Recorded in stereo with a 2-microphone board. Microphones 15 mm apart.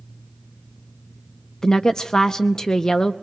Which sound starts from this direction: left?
A woman speaking, at 1.6 s.